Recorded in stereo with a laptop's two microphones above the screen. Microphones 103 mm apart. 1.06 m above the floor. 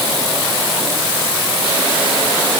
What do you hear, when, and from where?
Only background noise.